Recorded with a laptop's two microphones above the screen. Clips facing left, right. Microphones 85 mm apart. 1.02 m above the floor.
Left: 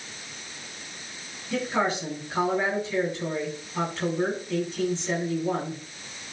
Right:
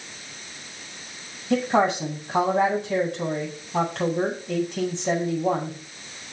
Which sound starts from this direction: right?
A woman speaking, at 1.5 s.